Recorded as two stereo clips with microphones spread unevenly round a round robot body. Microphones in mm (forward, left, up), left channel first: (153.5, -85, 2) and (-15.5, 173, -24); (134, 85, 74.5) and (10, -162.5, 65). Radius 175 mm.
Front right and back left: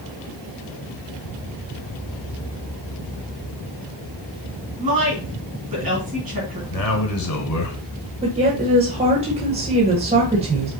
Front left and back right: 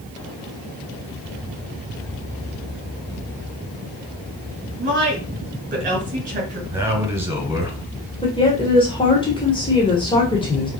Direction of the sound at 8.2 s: 115° left.